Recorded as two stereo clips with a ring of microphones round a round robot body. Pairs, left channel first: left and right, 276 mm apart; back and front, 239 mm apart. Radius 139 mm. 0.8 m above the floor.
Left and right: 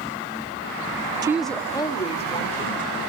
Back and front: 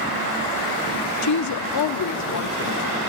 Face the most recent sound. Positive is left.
turn(degrees=155)